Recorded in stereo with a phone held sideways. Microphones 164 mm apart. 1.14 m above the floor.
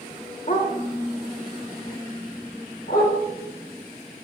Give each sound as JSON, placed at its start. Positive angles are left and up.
{"t": 0.5, "sound": "a dog barking", "side_deg": 55, "distance_m": 1.2}